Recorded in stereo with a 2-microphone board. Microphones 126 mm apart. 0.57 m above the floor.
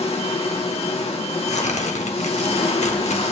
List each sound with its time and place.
0.0 s an engine running: 55° left (ahead or behind), 1.1 m
1.5 s tearing paper: 70° left (ahead or behind), 0.8 m